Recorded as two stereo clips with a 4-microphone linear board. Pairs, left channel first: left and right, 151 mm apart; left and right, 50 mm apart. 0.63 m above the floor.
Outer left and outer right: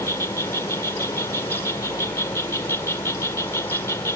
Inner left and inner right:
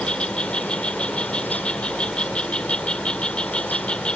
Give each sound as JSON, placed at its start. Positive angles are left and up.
{"t": 0.0, "sound": "an insect", "side_deg": 20}